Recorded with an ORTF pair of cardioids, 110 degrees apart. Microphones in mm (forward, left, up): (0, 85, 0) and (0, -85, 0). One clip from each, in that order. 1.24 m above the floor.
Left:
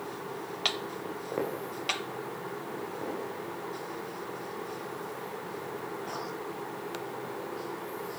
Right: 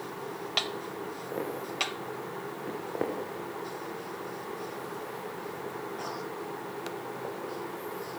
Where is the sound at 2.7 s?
70° right, 7 m.